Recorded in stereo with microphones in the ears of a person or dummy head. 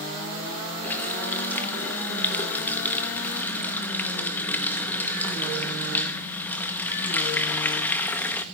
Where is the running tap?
10° left (ahead or behind), 0.8 m.